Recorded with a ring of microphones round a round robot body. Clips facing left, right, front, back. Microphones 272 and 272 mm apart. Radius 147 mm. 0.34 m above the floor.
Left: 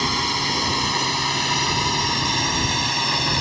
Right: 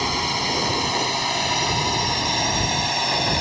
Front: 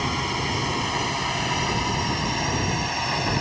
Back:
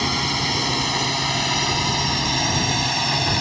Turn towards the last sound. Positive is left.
turn(degrees=155)